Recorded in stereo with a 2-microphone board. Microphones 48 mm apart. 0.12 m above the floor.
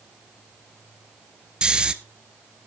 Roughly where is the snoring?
Centre.